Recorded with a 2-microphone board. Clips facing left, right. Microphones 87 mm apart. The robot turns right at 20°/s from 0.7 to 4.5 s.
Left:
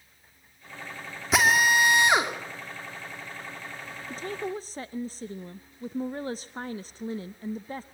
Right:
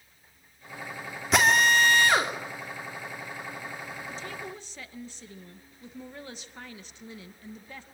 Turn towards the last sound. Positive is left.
turn(degrees=35)  # may be behind; listen again after turning